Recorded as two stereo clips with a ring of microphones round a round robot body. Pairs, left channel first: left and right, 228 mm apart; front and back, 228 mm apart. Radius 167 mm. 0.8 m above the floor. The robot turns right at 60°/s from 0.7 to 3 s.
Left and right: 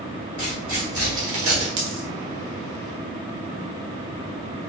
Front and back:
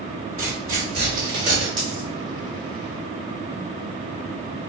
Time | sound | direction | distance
0.4 | tearing paper | 150° right | 1.9 m
1.8 | a dropped coin | 90° right | 1.2 m